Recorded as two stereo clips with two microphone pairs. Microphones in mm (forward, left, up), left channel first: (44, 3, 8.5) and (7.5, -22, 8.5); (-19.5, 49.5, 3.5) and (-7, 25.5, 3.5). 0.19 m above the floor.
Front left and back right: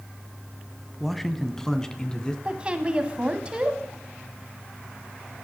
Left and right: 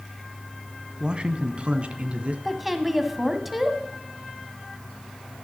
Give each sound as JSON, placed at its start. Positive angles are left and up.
{"t": 1.0, "sound": "a man speaking", "azimuth_deg": -50, "distance_m": 1.1}
{"t": 2.5, "sound": "a woman speaking", "azimuth_deg": -145, "distance_m": 1.2}